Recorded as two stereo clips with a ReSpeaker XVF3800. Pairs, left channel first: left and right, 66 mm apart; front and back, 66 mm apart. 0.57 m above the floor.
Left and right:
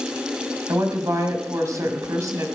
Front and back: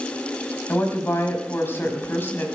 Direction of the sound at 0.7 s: 55° right.